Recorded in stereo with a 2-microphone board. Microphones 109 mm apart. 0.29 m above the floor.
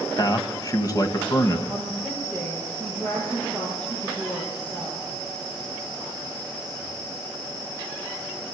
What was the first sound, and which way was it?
A man speaking, 35° left (ahead or behind).